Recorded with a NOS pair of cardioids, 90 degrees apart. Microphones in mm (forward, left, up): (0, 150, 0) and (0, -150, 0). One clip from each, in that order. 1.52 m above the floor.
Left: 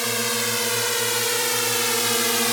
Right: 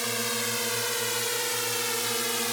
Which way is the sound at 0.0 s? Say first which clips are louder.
Left 5 dB; 35° left.